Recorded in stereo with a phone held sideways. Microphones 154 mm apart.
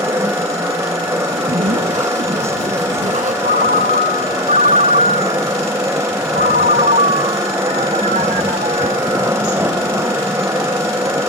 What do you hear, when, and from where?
0.0 s a machine running: 20° right (ahead or behind)
1.3 s a zipper: 65° right (ahead or behind)
3.4 s a ringtone: 70° right (ahead or behind)